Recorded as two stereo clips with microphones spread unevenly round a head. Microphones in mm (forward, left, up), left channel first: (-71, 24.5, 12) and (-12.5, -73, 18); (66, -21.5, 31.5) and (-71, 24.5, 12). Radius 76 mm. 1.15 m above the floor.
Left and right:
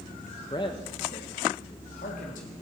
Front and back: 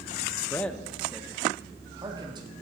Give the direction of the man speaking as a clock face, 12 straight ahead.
10 o'clock.